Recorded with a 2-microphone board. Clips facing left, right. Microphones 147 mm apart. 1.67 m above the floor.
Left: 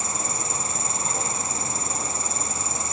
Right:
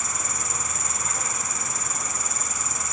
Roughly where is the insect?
Left.